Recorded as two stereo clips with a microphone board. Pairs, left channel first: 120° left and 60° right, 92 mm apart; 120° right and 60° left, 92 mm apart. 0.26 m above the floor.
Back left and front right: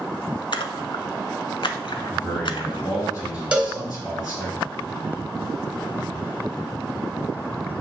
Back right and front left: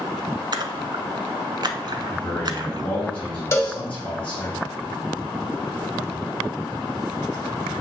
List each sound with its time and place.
0.5 s a splash: 95° left, 0.7 m
2.1 s a man speaking: 165° left, 4 m
3.5 s a cowbell: 120° right, 1.3 m